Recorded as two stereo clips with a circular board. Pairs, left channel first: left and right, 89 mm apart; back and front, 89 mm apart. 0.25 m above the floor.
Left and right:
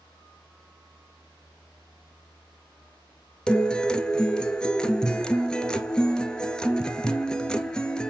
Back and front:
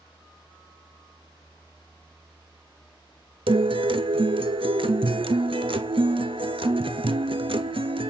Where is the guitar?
10° left, 0.7 m.